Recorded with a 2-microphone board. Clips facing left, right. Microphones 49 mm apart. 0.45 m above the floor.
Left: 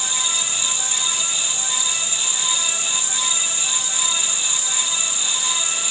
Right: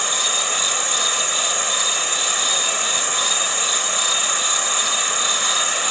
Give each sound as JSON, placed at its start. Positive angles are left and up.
{"t": 0.0, "sound": "an insect", "side_deg": -55}